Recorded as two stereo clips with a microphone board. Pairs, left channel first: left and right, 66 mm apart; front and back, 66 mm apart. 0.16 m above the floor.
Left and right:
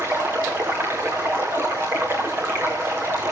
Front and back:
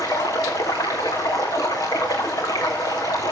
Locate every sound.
0.0 s running water: 35° right, 3.5 m